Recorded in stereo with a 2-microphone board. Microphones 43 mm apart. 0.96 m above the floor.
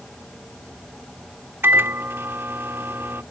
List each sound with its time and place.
1.6 s a microwave: 65° right (ahead or behind)